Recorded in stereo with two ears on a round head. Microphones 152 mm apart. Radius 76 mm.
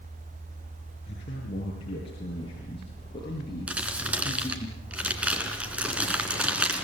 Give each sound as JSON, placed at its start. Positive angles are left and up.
{"t": 1.1, "sound": "a man speaking", "side_deg": 40, "distance_m": 9.0}
{"t": 3.7, "sound": "crumpling", "side_deg": -10, "distance_m": 3.0}